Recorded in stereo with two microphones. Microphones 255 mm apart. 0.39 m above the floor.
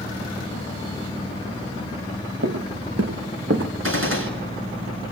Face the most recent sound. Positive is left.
turn(degrees=-55)  # may be behind; listen again after turning